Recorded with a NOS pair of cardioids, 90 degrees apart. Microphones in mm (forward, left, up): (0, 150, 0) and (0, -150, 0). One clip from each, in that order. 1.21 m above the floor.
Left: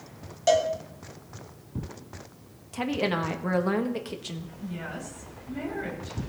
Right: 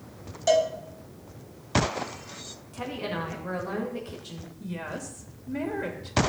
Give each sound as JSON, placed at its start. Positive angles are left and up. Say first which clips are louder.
{"t": 0.5, "sound": "a cowbell", "louder": "even", "azimuth_deg": 10, "distance_m": 1.7}
{"t": 2.7, "sound": "a woman speaking", "louder": "left 5 dB", "azimuth_deg": 50, "distance_m": 1.9}
{"t": 4.6, "sound": "a woman speaking", "louder": "right 2 dB", "azimuth_deg": -55, "distance_m": 2.5}